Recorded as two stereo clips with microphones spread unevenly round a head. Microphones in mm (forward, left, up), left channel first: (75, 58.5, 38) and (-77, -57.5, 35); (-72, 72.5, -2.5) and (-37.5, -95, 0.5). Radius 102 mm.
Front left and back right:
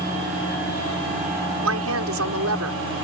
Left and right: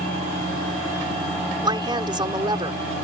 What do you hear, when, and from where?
1.6 s a woman speaking: 140° right